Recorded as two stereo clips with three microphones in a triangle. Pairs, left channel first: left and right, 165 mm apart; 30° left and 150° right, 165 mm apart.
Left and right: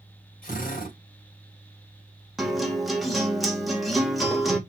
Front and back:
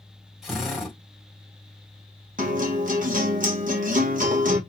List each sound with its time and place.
0.4 s a drill: 120° left, 3.5 m
2.4 s a guitar: straight behind, 1.6 m